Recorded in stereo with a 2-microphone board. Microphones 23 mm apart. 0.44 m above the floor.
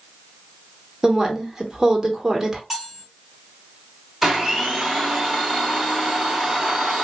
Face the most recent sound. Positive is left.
turn(degrees=-10)  # may be behind; listen again after turning